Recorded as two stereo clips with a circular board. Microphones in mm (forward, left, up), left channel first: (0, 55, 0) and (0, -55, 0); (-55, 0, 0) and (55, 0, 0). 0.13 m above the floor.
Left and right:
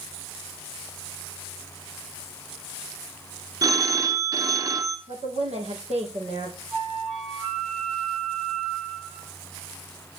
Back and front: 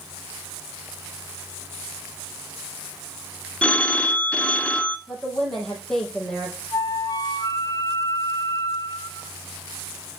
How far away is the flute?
About 3 m.